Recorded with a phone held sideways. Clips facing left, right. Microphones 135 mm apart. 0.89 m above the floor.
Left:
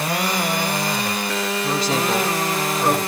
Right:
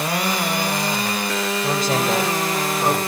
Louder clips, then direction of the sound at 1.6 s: Right 1 dB; 50° right (ahead or behind).